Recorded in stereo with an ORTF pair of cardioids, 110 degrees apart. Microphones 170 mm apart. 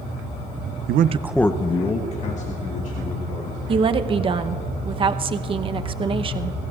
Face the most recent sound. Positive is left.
turn(degrees=-30)